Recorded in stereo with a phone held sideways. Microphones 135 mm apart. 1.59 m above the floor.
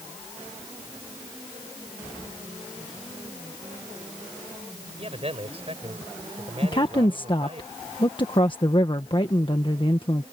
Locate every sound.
5.0 s a man speaking: 45° right (ahead or behind)
6.6 s a woman speaking: 35° left (ahead or behind)